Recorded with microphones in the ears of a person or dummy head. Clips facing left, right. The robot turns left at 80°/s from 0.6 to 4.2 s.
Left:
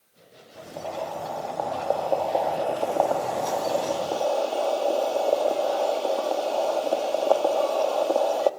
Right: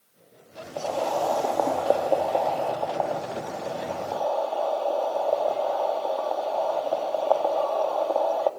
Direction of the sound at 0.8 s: 50° right.